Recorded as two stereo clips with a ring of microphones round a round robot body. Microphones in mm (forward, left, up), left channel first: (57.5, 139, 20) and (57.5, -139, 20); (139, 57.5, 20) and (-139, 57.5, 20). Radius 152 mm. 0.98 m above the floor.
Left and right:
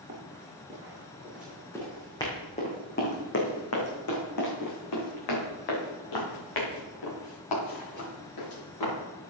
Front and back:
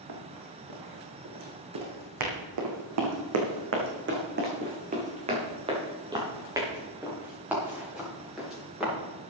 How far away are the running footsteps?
About 5 m.